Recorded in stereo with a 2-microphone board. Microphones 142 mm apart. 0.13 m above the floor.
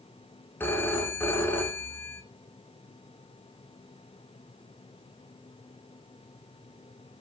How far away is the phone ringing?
About 0.6 m.